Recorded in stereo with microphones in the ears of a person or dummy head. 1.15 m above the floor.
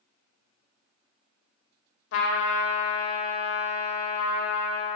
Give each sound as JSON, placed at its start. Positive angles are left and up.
{"t": 2.1, "sound": "a trumpet", "side_deg": 80, "distance_m": 0.7}